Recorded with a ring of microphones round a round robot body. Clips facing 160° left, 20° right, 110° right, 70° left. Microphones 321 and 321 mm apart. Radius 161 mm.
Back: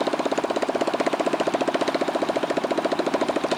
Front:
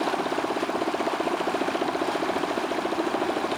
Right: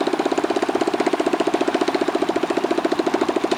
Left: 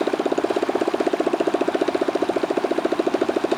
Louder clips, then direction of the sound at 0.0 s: Back 3 dB, right 1 dB; 175° left.